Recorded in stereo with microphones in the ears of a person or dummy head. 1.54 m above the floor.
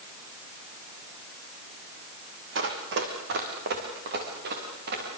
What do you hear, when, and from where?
2.5 s running footsteps: 65° right (ahead or behind), 3.5 m; by 5.1 s 55° right (ahead or behind), 7 m